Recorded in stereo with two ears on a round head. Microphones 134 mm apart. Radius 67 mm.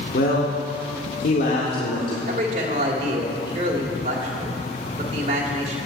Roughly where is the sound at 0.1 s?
Left.